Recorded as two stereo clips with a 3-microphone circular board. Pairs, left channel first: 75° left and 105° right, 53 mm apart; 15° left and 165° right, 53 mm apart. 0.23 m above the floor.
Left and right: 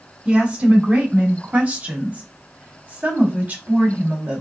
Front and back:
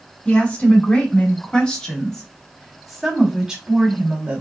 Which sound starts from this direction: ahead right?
A woman speaking, at 0.2 s.